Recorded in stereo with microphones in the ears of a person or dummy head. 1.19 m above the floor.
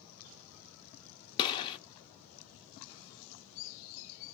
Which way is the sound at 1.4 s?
25° left (ahead or behind).